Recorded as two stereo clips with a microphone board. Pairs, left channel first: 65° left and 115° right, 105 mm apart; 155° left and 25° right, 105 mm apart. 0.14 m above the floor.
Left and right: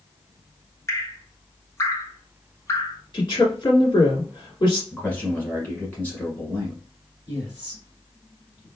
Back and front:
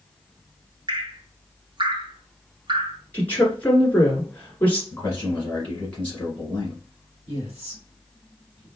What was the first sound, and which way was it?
Dripping, 10° left.